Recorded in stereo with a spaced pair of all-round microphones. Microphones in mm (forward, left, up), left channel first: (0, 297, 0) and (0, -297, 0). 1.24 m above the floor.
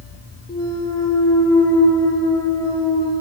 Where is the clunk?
5° left (ahead or behind), 2.5 m.